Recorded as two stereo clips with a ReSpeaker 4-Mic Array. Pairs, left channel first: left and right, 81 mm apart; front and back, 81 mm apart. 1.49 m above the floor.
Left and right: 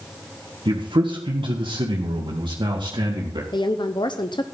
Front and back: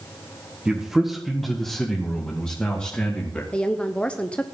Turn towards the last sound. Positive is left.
turn(degrees=75)